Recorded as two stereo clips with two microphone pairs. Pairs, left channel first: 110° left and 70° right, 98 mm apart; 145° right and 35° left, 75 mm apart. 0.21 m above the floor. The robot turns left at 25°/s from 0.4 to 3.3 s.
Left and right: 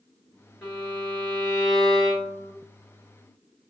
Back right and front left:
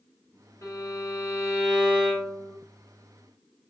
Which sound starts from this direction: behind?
A violin, at 0.6 s.